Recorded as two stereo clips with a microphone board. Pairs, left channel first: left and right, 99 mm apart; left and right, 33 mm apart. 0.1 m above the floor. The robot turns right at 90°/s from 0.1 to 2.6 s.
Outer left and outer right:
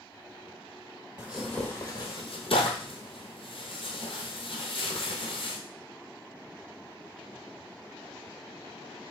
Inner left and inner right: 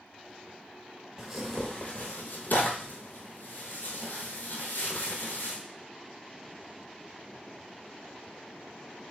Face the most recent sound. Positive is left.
turn(degrees=65)  # may be behind; listen again after turning